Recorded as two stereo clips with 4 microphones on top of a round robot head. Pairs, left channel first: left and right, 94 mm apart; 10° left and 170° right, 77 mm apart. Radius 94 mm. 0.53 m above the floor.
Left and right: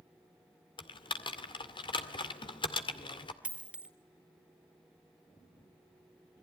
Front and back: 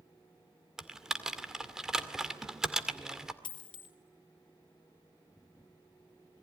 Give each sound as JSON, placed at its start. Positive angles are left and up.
{"t": 0.8, "sound": "typing on a keyboard", "azimuth_deg": 105, "distance_m": 2.0}
{"t": 3.4, "sound": "a dropped coin", "azimuth_deg": -10, "distance_m": 2.0}